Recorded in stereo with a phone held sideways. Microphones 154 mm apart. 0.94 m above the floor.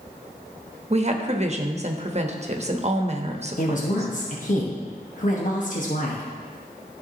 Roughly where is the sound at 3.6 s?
Left.